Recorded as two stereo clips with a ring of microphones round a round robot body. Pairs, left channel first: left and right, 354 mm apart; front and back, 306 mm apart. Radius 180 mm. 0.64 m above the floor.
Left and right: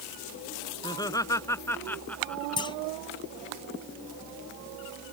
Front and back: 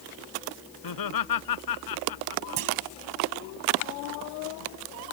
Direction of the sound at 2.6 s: 165° left.